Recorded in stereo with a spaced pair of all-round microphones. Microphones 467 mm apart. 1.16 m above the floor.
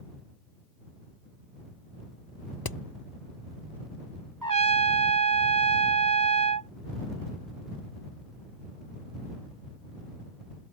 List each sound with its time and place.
2.6 s hammering: 45° left (ahead or behind)
4.4 s a trumpet: 40° right (ahead or behind)